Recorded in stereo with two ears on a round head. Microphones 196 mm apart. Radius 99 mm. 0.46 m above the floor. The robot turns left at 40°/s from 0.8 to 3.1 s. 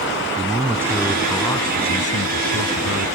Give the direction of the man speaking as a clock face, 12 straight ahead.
6 o'clock.